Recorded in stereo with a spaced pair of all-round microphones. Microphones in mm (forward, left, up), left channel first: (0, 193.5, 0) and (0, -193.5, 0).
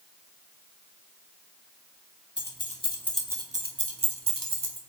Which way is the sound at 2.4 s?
25° left (ahead or behind).